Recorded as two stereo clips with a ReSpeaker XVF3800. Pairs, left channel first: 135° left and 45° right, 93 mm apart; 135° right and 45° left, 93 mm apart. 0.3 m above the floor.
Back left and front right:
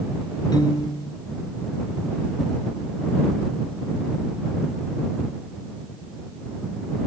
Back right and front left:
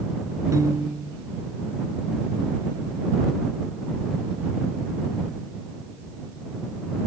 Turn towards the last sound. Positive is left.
turn(degrees=95)